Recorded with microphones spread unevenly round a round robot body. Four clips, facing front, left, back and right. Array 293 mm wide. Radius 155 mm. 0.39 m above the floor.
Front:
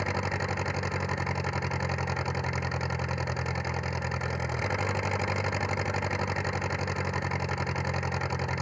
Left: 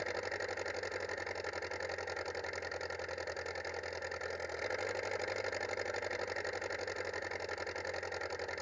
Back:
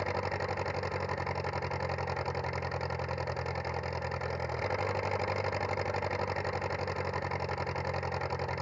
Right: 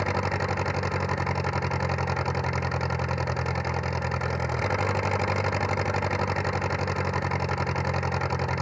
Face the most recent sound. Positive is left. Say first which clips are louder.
# right 12 dB, front 2 dB
turn(degrees=-70)